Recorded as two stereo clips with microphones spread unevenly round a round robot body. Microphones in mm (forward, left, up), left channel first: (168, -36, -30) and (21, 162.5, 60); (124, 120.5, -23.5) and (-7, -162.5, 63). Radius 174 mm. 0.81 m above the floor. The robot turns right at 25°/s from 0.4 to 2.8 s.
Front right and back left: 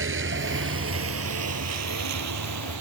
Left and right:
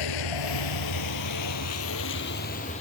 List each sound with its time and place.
0.0 s a vehicle: 95° left; by 2.8 s 140° left